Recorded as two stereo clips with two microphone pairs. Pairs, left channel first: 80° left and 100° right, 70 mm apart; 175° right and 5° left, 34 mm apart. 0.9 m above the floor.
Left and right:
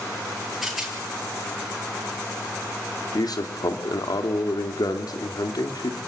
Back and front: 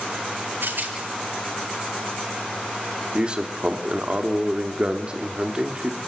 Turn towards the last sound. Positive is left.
turn(degrees=65)